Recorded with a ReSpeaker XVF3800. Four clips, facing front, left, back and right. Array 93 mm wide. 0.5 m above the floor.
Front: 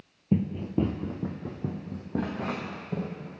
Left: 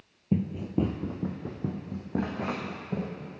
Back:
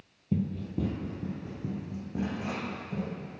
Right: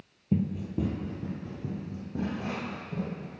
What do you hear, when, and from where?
0.3 s running footsteps: 25° left, 0.5 m; by 3.4 s 55° left, 2 m